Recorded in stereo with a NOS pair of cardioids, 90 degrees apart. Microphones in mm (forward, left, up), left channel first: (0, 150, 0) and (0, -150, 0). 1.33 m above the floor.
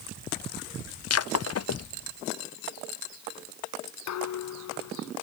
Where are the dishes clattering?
65° left.